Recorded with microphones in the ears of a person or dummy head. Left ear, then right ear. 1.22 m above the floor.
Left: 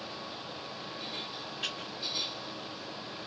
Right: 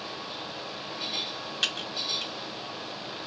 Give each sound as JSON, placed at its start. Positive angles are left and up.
{"t": 1.6, "sound": "typing on a keyboard", "side_deg": -40, "distance_m": 1.2}